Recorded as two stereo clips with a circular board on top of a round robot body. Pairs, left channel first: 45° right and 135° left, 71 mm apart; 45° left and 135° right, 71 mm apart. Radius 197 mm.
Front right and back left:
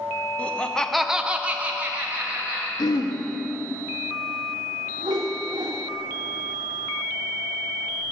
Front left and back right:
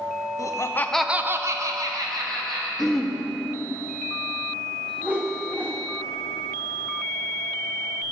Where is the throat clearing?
40° right, 1.2 m.